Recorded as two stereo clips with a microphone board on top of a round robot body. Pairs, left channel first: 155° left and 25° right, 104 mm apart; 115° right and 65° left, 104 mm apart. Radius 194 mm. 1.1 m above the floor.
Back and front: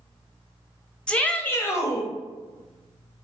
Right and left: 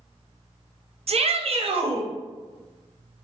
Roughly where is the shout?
Left.